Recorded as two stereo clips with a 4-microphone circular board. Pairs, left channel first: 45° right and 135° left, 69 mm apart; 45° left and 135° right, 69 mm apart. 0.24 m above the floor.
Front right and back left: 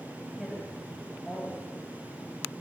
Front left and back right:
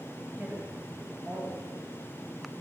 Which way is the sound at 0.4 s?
135° right.